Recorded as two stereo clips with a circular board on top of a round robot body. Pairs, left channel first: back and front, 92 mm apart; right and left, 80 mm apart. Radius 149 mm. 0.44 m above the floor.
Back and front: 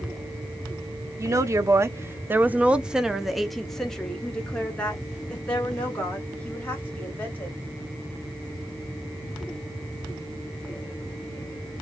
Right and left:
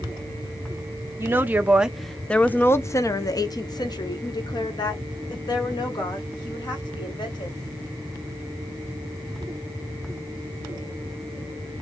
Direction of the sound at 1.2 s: 45° left.